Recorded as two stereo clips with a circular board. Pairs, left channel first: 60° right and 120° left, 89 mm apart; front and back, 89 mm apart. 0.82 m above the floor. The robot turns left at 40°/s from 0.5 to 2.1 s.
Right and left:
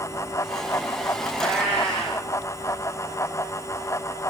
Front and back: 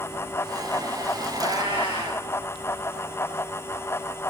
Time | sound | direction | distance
1.3 | a cat meowing | 160° right | 10 m